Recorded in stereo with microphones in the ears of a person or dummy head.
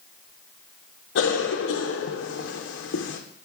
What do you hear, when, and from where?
1.1 s a cough: 65° left (ahead or behind), 0.6 m